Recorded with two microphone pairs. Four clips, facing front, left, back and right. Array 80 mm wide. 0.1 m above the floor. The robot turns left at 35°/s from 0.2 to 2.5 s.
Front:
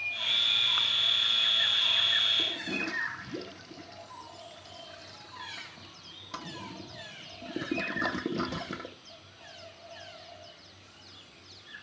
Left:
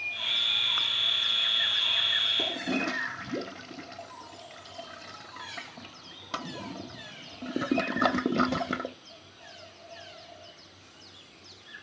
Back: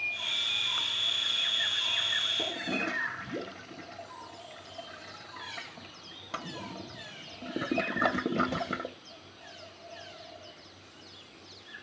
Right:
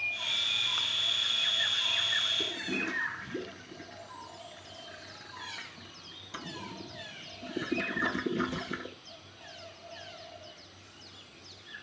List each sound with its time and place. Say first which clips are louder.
2.4 s a toilet flushing: left 4 dB, back 2 dB; 110° left, 1.0 m; by 8.9 s 105° left, 1.0 m